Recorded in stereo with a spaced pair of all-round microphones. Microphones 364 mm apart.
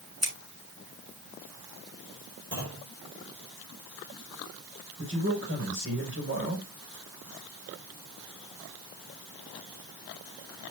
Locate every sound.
0.2 s scissors: 45° right (ahead or behind), 8.5 m
2.5 s a clunk: 30° right (ahead or behind), 6 m
5.0 s a man speaking: 35° right (ahead or behind), 6 m